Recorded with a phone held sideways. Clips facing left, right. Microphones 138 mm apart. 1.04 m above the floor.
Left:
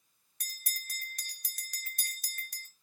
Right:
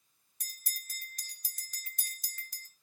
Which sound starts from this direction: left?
A bell, at 0.4 s.